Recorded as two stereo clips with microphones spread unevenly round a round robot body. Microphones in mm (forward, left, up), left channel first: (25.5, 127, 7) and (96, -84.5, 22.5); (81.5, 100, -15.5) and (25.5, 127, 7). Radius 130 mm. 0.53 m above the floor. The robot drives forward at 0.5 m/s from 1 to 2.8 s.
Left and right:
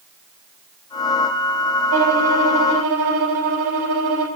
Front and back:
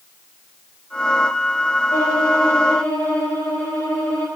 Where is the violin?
75° right, 2.5 m; by 4.3 s 90° right, 2.5 m.